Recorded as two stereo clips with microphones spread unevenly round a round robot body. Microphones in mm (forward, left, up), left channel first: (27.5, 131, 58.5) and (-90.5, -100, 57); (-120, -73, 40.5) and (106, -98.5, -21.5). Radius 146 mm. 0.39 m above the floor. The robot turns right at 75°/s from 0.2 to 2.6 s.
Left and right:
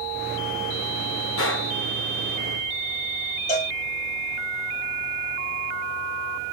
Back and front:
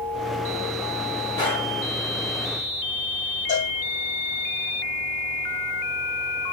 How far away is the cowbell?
About 2.5 m.